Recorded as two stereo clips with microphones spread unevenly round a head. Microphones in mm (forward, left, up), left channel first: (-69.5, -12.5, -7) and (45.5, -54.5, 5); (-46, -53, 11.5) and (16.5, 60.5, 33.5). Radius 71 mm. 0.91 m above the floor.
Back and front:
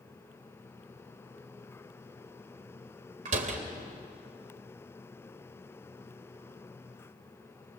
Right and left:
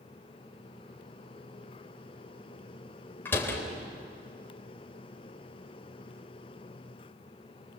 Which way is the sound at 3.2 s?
45° right.